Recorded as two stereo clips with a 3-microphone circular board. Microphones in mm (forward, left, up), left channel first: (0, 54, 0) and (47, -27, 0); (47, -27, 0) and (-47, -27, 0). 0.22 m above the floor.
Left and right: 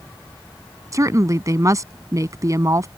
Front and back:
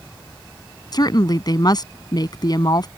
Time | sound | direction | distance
0.9 | a woman speaking | 20° right | ?